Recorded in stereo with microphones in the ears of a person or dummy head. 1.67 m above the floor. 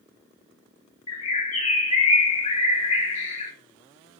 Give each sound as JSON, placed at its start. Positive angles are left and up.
{"t": 1.1, "sound": "a bird", "side_deg": 40, "distance_m": 0.7}